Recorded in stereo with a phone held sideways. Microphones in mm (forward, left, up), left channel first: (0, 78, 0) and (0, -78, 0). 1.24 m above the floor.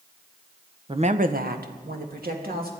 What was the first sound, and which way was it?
A woman speaking, 30° right (ahead or behind).